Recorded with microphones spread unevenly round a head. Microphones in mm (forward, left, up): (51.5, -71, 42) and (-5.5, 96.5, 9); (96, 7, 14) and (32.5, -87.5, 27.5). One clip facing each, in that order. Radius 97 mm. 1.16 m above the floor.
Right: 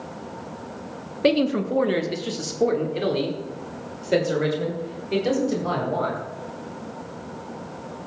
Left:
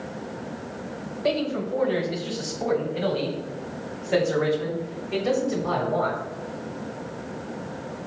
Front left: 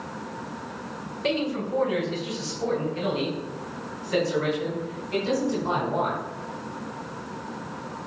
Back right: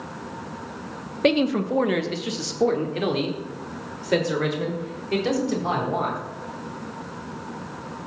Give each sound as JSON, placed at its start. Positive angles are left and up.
{"t": 1.2, "sound": "a man speaking", "azimuth_deg": -100, "distance_m": 0.9}